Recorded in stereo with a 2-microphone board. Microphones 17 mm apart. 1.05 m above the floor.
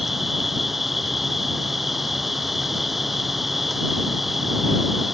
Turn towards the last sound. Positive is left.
turn(degrees=-10)  # may be behind; listen again after turning